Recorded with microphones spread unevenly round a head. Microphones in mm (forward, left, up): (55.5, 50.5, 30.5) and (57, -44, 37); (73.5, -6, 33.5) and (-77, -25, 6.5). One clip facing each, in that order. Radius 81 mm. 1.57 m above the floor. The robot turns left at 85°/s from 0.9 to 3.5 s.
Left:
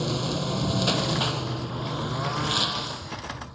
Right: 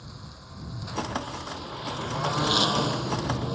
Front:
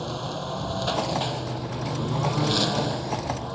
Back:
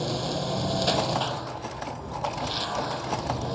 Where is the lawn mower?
110° left; by 3.6 s 100° right.